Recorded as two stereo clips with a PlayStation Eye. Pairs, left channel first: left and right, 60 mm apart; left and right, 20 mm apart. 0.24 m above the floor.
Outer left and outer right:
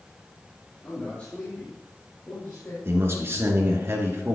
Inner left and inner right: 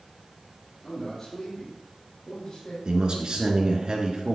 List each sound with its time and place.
0.8 s a man speaking: 20° left (ahead or behind), 4 m; by 2.8 s 30° left (ahead or behind), 5 m
2.9 s a man speaking: 45° right (ahead or behind), 3 m